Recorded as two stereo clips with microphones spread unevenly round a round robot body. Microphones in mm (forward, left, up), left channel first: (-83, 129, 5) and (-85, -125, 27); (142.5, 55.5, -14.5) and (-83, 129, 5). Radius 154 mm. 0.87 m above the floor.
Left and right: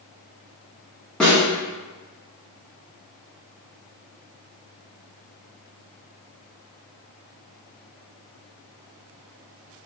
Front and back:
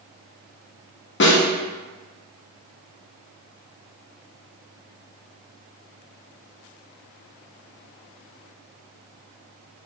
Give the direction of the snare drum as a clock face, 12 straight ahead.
12 o'clock.